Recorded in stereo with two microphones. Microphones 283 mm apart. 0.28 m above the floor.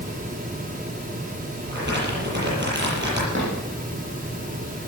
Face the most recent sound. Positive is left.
turn(degrees=-45)  # may be behind; listen again after turning